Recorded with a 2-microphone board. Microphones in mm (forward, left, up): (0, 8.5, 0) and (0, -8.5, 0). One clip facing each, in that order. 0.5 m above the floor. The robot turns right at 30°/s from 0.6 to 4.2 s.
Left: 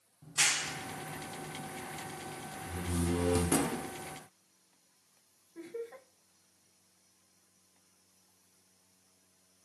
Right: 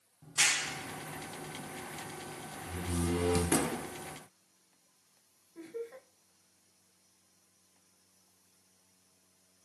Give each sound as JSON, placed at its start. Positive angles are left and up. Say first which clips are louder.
{"t": 0.2, "sound": "a clap", "louder": "right 1 dB", "side_deg": -5, "distance_m": 0.6}
{"t": 2.7, "sound": "a door slam", "louder": "even", "side_deg": -20, "distance_m": 0.6}
{"t": 5.5, "sound": "laughter", "louder": "even", "side_deg": 20, "distance_m": 1.1}